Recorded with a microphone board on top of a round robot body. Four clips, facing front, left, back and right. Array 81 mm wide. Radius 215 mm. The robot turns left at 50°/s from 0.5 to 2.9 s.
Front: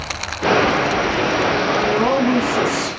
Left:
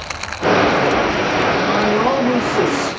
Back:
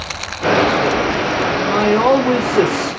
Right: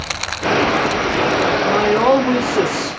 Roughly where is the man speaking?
Behind right.